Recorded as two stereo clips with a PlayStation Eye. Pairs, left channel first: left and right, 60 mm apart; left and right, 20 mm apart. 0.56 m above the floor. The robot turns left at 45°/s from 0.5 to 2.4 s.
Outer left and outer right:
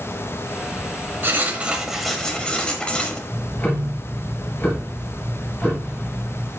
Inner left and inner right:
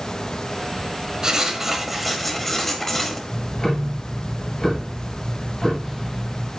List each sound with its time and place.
1.2 s writing: 145° right, 1.0 m; by 3.2 s 165° left, 1.0 m
3.3 s ticking: 30° left (ahead or behind), 2 m